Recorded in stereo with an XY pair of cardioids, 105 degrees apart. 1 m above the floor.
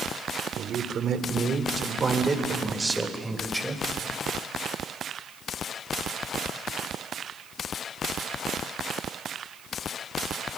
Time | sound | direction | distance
0.6 | a man speaking | 65° right | 2.5 m